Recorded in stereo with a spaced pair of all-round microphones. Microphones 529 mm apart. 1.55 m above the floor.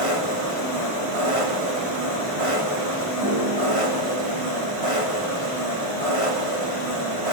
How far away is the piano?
About 6.5 m.